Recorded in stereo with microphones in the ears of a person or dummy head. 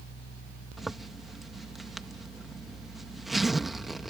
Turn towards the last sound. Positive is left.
turn(degrees=0)  # may be behind; listen again after turning